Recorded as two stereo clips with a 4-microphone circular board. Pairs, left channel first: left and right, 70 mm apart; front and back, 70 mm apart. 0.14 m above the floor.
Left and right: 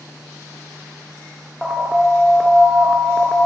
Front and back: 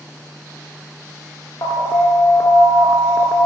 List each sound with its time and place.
1.6 s an alarm: 5° right, 1.2 m